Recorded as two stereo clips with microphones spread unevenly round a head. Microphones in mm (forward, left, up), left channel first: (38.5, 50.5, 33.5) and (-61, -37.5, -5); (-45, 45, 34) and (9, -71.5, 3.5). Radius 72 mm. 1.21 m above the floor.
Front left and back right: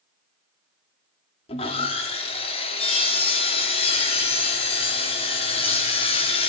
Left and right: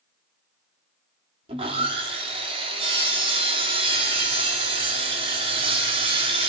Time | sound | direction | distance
1.5 | sawing | 10° right | 2 m